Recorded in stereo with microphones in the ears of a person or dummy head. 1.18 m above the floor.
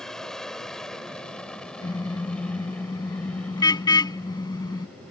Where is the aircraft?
Centre (ahead or behind); by 5.1 s 5° left (ahead or behind).